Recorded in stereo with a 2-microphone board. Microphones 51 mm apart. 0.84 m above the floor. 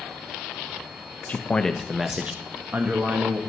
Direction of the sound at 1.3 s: 30° left (ahead or behind).